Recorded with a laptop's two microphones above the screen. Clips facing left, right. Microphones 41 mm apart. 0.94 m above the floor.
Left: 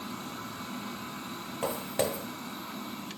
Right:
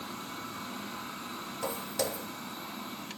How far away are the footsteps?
About 1.2 m.